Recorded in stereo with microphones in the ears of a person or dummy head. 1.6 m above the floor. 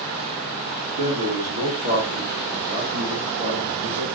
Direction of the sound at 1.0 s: 50° right (ahead or behind).